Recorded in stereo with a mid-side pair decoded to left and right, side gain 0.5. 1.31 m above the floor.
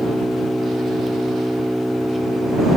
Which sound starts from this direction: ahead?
An engine running, at 0.0 s.